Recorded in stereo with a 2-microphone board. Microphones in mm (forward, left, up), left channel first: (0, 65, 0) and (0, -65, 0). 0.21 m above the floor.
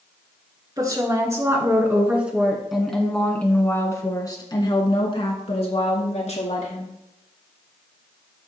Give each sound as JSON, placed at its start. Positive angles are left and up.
{"t": 0.8, "sound": "a woman speaking", "side_deg": -30, "distance_m": 3.0}